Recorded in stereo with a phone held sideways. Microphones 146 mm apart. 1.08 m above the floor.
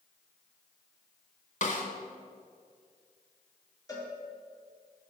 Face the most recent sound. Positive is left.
turn(degrees=25)  # may be behind; listen again after turning